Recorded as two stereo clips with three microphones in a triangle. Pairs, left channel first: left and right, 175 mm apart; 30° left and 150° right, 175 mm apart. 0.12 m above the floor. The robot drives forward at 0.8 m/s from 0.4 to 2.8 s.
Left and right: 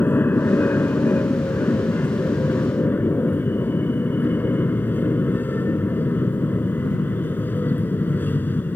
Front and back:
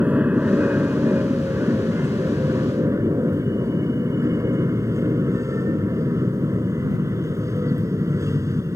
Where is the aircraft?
145° left; by 8.8 s 160° left.